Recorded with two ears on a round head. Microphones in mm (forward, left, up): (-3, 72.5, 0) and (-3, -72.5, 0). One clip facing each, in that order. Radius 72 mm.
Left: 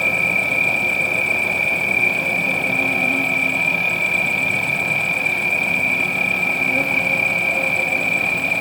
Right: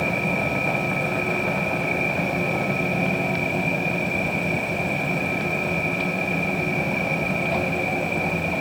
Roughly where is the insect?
Left.